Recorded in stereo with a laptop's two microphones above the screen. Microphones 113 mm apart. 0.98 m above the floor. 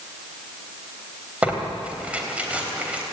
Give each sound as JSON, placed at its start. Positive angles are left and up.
{"t": 1.4, "sound": "tearing paper", "side_deg": -10, "distance_m": 3.5}